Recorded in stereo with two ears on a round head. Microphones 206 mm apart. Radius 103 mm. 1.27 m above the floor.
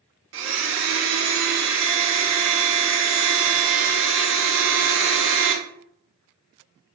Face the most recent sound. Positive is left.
turn(degrees=-60)  # may be behind; listen again after turning